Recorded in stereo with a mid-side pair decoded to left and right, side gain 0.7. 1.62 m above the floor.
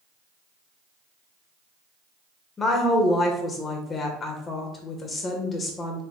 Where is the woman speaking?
25° left, 1.2 m.